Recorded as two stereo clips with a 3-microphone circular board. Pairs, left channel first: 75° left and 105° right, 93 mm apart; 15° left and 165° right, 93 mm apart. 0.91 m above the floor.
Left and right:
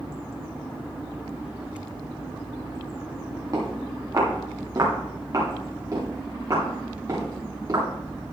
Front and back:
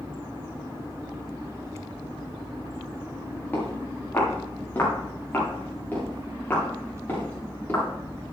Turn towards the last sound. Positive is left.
turn(degrees=-55)